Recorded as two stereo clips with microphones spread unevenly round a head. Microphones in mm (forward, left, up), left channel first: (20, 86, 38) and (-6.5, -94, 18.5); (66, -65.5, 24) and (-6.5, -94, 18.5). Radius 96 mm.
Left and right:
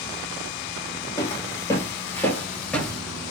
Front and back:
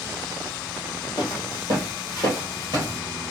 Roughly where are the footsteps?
Behind left.